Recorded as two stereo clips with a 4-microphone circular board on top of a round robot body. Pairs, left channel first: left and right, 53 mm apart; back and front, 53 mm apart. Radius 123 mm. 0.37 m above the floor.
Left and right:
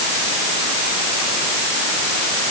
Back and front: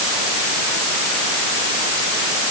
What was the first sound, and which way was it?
Only background noise.